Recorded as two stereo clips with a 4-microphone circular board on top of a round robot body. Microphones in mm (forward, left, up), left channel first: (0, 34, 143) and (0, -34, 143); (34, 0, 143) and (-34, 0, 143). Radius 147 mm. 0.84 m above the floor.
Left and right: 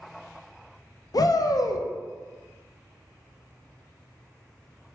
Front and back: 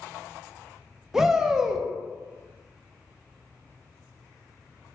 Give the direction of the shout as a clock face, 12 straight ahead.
9 o'clock.